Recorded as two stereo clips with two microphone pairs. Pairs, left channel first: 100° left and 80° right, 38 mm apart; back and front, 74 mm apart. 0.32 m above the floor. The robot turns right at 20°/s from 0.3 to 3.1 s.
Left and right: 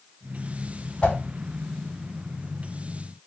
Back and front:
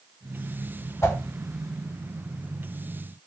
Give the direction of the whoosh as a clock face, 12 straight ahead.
7 o'clock.